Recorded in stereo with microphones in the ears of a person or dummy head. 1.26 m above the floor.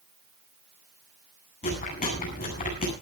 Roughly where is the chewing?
Left.